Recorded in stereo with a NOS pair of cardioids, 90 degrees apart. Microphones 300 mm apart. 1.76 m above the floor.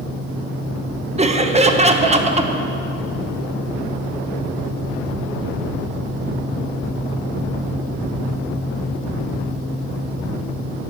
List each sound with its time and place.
1.2 s laughter: 20° right, 1.1 m